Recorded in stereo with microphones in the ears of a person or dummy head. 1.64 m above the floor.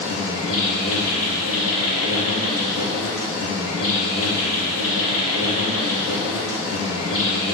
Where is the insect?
70° left (ahead or behind), 1.7 m.